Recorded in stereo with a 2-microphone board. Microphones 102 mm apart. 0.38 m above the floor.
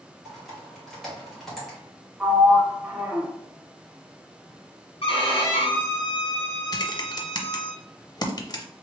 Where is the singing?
I don't hear singing.